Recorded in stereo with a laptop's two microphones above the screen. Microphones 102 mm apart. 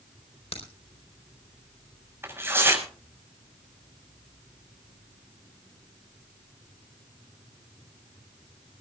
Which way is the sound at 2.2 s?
25° right (ahead or behind).